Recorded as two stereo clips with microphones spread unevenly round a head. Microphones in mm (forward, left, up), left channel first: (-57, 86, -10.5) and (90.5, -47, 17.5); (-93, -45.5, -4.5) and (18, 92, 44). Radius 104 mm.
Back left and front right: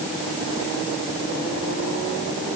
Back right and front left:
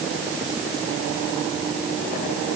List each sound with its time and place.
Only background noise.